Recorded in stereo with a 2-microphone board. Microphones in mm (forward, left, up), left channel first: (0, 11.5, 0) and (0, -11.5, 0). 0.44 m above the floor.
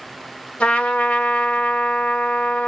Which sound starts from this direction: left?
A trumpet, at 0.6 s.